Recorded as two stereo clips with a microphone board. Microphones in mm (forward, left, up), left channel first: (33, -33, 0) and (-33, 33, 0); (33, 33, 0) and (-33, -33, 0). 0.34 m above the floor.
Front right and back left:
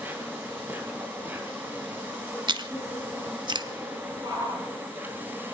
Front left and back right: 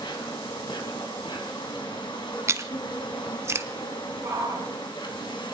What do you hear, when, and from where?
0.0 s an insect: 70° left, 3.5 m
2.5 s chewing: 165° left, 1.0 m
4.2 s a shout: 165° left, 8 m